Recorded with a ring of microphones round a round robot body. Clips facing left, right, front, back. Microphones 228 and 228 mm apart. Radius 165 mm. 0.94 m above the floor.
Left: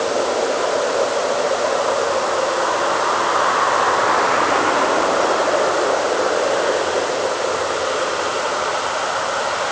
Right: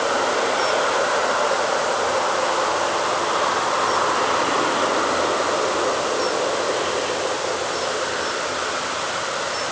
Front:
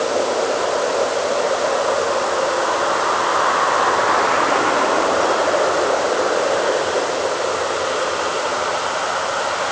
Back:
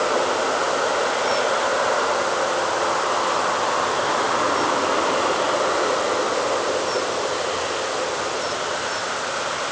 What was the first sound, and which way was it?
Only background noise.